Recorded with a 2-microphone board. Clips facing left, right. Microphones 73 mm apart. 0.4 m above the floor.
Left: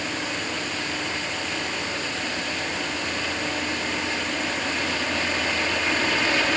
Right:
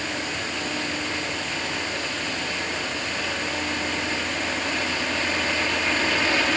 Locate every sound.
Only background noise.